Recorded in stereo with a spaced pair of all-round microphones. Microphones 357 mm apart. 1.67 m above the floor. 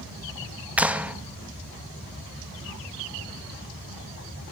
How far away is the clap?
About 1.3 m.